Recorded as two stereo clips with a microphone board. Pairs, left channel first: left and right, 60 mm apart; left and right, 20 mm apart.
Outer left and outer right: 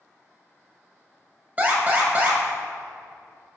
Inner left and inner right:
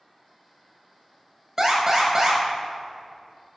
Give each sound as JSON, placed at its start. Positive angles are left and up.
{"t": 1.6, "sound": "an alarm", "side_deg": -25, "distance_m": 1.5}